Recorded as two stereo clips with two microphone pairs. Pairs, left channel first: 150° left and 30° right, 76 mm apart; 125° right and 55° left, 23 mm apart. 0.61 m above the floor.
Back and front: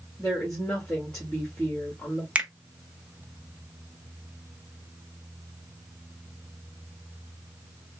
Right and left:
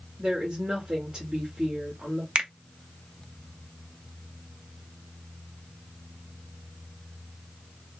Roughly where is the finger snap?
Ahead left.